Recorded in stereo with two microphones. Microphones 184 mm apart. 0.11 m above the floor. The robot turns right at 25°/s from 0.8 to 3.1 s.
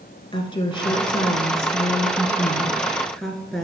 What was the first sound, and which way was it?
A woman speaking, 120° left.